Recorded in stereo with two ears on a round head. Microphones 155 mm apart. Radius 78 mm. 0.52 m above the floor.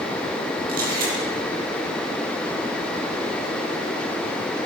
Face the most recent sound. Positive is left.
turn(degrees=-55)  # may be behind; listen again after turning